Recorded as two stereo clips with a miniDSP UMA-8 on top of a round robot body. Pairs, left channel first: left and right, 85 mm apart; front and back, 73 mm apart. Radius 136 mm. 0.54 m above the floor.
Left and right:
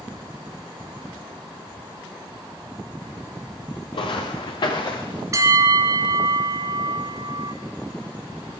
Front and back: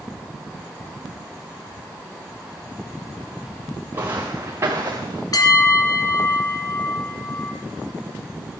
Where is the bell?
35° right, 1.7 m.